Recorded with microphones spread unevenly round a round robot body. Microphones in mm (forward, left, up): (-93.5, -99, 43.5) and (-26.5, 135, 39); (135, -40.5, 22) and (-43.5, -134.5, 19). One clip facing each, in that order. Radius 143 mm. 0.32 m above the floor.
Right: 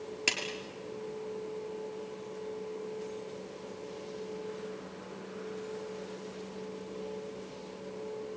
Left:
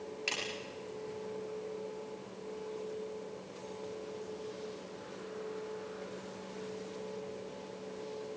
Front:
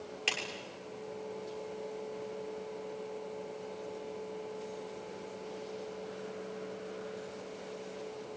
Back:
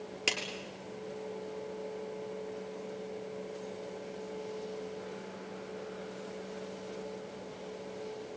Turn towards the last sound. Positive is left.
turn(degrees=-120)